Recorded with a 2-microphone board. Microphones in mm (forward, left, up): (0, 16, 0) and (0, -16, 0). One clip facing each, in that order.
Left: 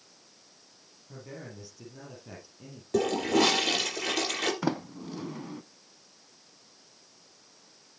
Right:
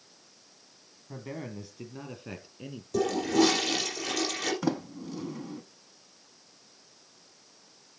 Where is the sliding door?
10° left (ahead or behind), 0.6 m.